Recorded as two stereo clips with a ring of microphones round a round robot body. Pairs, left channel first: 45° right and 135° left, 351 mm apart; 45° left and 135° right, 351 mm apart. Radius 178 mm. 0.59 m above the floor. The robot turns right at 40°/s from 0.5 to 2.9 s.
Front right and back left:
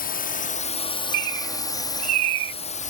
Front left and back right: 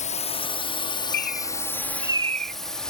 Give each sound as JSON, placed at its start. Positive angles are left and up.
{"t": 0.0, "sound": "a drone", "azimuth_deg": -5}
{"t": 1.1, "sound": "a bird", "azimuth_deg": 105}